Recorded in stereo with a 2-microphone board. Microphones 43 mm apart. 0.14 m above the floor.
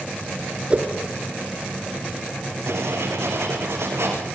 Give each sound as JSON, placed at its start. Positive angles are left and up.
{"t": 0.7, "sound": "a whoosh", "side_deg": -30, "distance_m": 2.0}
{"t": 2.7, "sound": "writing", "side_deg": -80, "distance_m": 5.0}